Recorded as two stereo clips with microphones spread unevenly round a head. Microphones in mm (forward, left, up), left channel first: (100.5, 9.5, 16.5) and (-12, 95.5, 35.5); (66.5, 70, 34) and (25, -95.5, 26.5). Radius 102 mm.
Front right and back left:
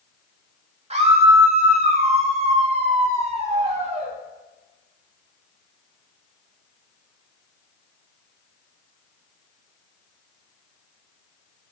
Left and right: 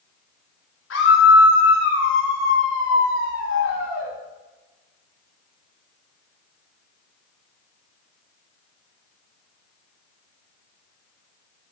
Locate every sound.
0.9 s a scream: 100° left, 4 m